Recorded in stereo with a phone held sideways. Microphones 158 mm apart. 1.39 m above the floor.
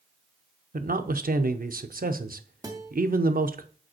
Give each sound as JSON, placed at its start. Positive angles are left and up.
{"t": 0.7, "sound": "a man speaking", "side_deg": -65, "distance_m": 0.7}
{"t": 2.6, "sound": "a guitar", "side_deg": -25, "distance_m": 1.2}